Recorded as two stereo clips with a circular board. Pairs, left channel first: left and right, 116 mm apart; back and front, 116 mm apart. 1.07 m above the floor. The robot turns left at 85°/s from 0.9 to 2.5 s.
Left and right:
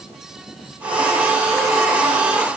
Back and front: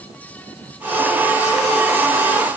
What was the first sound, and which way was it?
Only background noise.